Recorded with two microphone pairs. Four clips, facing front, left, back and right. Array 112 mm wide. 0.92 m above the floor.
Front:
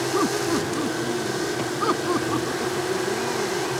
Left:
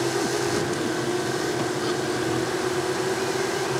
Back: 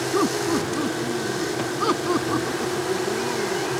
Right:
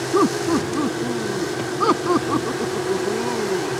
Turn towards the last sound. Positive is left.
turn(degrees=-85)